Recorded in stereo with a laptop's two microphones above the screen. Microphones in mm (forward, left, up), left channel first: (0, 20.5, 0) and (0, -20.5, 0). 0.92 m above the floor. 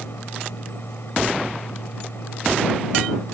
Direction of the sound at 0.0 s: 60° left (ahead or behind).